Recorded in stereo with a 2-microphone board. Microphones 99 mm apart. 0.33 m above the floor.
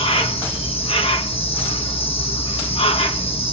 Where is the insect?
75° left (ahead or behind), 0.8 m.